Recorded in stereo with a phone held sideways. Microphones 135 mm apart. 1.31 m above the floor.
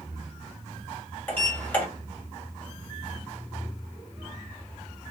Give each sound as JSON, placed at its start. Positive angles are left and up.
{"t": 1.3, "sound": "a sliding door", "side_deg": 15, "distance_m": 1.4}